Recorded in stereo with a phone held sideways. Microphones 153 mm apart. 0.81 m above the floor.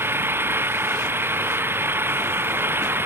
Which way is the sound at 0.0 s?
15° right (ahead or behind).